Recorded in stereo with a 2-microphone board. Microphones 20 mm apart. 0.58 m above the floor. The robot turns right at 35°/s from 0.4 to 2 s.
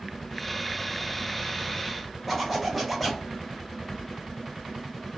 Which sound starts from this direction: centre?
A zipper, at 2.3 s.